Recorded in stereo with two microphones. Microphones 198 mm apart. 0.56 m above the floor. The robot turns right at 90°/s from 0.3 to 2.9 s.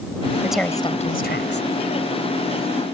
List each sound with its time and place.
0.4 s a woman speaking: 10° right; by 1.7 s 100° left